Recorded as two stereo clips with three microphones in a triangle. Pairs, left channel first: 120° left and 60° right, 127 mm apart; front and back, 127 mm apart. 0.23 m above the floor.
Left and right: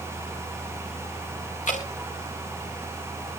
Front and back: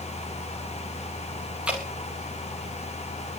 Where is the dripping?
100° left, 3.5 m.